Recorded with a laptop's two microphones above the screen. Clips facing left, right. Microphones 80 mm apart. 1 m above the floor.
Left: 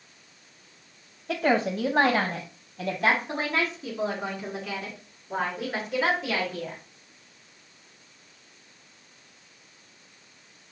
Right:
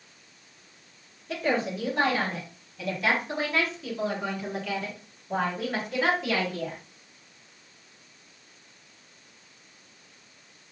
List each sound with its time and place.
1.3 s a woman speaking: 80° left, 1.1 m; by 6.8 s centre (ahead or behind), 3.5 m